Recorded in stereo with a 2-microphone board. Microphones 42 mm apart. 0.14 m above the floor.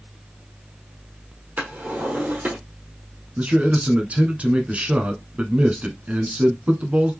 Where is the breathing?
No breathing in this recording.